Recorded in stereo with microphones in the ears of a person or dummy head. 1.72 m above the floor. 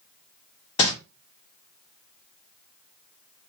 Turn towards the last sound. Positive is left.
turn(degrees=35)  # may be behind; listen again after turning